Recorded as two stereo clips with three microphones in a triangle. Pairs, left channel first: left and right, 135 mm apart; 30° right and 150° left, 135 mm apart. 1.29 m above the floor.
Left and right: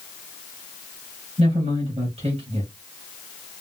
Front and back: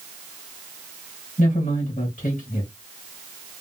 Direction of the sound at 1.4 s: 50° right.